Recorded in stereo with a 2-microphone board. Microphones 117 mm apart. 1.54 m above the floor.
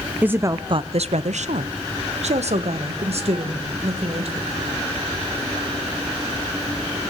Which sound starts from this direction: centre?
A woman speaking, at 0.2 s.